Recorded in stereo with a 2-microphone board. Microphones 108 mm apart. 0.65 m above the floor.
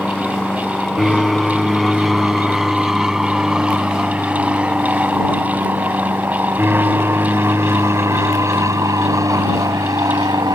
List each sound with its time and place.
0.0 s an aircraft: 5° left (ahead or behind); by 10.6 s 40° right (ahead or behind)